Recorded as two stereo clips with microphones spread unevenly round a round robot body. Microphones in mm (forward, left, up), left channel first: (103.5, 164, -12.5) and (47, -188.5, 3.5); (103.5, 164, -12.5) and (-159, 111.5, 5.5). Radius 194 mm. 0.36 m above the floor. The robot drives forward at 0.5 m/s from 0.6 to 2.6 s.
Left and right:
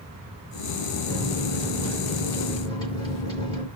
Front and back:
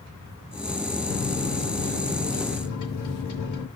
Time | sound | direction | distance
1.1 | a microwave | 5° left | 6 m